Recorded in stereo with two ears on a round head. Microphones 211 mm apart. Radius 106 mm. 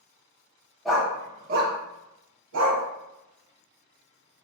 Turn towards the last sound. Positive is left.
turn(degrees=-65)  # may be behind; listen again after turning